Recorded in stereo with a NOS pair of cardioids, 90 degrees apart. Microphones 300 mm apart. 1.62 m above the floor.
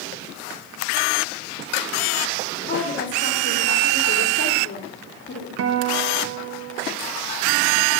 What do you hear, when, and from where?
2.7 s a woman speaking: 40° left, 2 m
5.6 s a guitar: 55° right, 0.9 m